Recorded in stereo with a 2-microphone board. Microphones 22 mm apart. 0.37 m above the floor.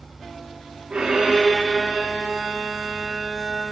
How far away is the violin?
About 9 m.